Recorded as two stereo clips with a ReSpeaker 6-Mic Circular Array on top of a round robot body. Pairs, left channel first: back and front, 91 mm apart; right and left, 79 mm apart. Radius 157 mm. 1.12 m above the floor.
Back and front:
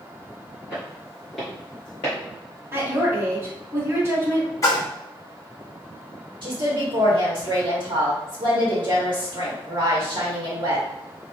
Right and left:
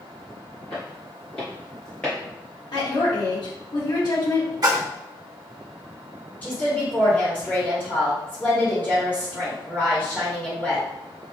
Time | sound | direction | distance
0.7 | footsteps | 70° right | 1.4 m
2.7 | a woman speaking | 60° right | 1.6 m
4.6 | a splash | 130° left | 0.7 m
6.4 | a woman speaking | 25° right | 1.3 m